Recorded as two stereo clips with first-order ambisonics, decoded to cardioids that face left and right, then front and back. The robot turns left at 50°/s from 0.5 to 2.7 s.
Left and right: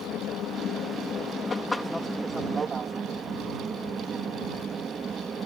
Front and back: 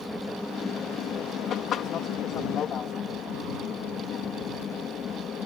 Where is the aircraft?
75° left; by 5.5 s 35° right.